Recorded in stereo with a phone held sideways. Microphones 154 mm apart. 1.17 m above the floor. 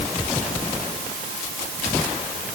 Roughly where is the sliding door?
No sliding door in this recording.